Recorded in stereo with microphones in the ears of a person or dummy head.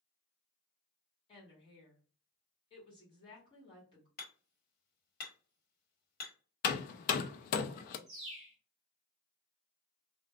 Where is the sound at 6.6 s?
45° left (ahead or behind), 0.5 m.